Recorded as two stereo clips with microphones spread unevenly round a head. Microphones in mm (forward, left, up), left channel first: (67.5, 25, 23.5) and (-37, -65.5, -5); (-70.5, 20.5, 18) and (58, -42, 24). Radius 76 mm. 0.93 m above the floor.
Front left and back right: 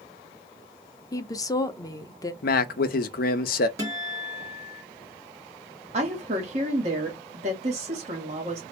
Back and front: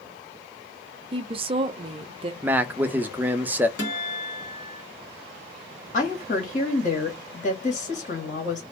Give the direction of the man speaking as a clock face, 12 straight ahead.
10 o'clock.